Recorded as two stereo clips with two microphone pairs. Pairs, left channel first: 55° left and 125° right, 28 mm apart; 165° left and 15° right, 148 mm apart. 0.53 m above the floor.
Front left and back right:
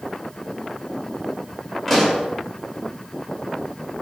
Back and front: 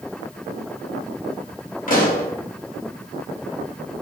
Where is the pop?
140° left, 0.8 m.